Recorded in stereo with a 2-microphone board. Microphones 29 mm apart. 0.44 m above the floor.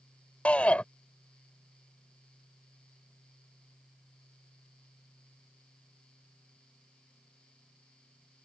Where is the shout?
50° left (ahead or behind).